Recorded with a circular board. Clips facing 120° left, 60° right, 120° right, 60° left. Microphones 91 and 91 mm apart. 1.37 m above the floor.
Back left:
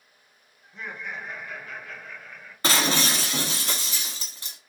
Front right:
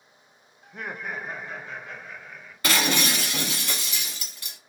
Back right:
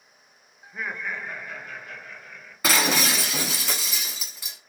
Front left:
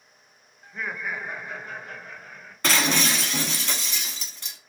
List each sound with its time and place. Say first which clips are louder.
0.6 s laughter: front right 2 dB, even; 45° right, 0.7 m; by 2.5 s 20° left, 1.6 m
2.6 s breaking glass: even, even; 160° left, 1.0 m